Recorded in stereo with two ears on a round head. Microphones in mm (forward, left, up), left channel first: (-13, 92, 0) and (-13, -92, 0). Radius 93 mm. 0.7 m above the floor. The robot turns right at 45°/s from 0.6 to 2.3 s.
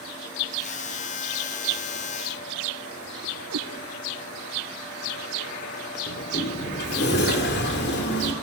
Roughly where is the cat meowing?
Right.